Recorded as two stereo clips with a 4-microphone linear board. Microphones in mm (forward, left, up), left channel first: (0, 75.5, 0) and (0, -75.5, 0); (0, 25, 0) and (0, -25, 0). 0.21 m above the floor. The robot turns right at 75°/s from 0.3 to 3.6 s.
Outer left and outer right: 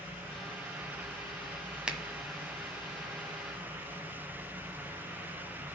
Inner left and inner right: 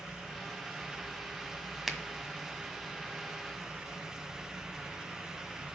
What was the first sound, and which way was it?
A finger snap, 5° right (ahead or behind).